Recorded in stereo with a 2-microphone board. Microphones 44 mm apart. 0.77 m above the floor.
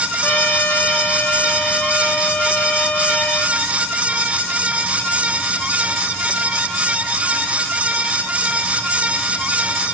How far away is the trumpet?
About 2 m.